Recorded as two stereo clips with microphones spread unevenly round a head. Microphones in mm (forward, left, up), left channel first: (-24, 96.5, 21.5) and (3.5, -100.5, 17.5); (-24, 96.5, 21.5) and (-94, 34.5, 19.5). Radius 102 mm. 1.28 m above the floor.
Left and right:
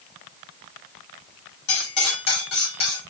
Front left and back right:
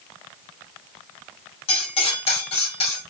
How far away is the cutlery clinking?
About 1.9 m.